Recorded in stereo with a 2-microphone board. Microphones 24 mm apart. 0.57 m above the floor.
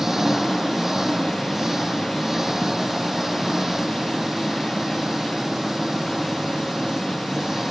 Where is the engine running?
20° right (ahead or behind).